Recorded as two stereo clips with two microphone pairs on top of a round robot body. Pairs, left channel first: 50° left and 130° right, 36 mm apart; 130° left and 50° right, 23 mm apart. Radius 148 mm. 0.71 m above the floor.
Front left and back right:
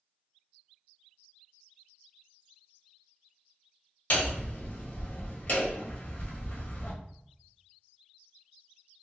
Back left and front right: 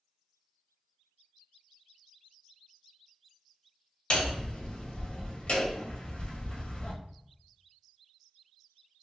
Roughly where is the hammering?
Left.